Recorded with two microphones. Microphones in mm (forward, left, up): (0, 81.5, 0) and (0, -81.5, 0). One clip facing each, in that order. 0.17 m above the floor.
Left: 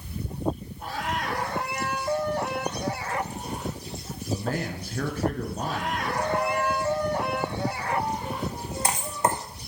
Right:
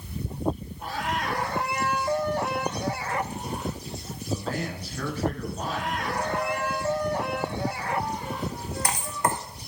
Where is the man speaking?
50° left (ahead or behind), 2.0 m.